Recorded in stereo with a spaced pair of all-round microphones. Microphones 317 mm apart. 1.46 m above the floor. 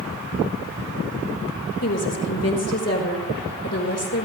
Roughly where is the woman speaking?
Left.